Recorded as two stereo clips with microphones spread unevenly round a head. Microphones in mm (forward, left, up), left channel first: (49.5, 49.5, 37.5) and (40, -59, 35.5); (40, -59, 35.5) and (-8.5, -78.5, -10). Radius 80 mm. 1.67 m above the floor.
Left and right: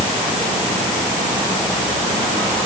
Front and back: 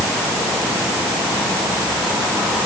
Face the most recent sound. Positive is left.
No sound to turn to.